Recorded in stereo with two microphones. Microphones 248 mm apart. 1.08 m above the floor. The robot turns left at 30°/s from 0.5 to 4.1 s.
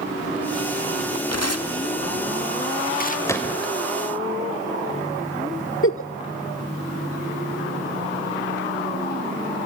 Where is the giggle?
60° left (ahead or behind), 1.1 m.